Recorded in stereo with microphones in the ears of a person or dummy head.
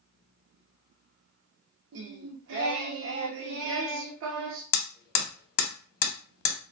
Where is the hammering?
55° left (ahead or behind), 0.6 m.